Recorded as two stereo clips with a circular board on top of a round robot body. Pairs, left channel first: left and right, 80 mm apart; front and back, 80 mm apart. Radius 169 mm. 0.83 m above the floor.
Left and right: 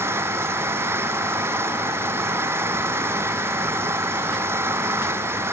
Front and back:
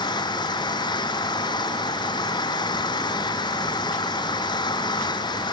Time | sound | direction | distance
0.0 | an engine running | 30° right | ?